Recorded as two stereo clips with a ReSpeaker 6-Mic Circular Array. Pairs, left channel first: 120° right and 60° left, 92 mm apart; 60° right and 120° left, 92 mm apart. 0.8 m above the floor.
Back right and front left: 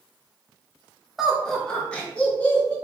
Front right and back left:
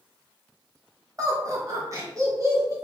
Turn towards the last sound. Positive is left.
turn(degrees=170)